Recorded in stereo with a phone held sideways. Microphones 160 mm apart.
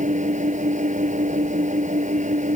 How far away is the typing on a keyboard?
No typing on a keyboard in this recording.